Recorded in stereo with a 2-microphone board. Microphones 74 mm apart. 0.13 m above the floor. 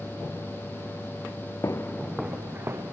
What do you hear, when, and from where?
1.6 s footsteps: 45° left (ahead or behind), 0.6 m; by 2.8 s 35° right (ahead or behind), 1.0 m